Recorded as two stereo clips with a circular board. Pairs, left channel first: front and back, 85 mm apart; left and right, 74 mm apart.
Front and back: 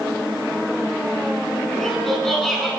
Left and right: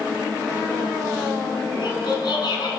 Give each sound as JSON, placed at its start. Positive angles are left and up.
{"t": 1.7, "sound": "laughter", "azimuth_deg": 85, "distance_m": 7.0}